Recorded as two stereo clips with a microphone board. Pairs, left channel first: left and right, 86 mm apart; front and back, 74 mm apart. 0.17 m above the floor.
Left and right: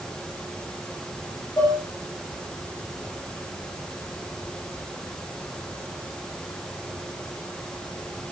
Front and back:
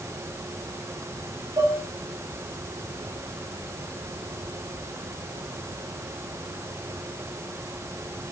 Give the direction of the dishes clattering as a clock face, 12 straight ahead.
7 o'clock.